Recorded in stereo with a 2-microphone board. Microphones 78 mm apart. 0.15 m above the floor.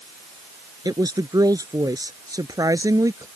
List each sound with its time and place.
0.8 s a woman speaking: 55° right (ahead or behind); by 3.3 s 45° right (ahead or behind)